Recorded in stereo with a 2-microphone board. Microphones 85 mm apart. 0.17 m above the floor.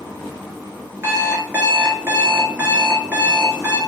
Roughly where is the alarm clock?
Right.